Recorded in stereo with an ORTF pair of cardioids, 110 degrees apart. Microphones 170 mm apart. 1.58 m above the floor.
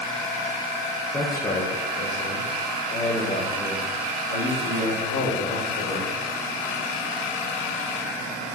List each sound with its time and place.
1.1 s a man speaking: 15° left, 1.1 m; by 6.2 s 80° left, 5.5 m